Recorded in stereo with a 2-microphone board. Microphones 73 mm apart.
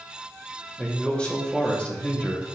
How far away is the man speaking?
About 1.5 m.